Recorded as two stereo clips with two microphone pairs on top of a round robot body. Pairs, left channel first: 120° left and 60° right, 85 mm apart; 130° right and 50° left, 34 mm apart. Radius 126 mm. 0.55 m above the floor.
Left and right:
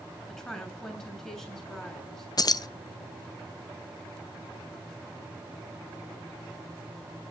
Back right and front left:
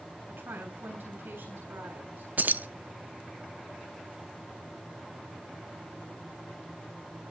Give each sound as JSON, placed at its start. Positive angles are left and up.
{"t": 0.3, "sound": "a woman speaking", "azimuth_deg": 40, "distance_m": 8.0}
{"t": 2.4, "sound": "keys jangling", "azimuth_deg": 85, "distance_m": 0.8}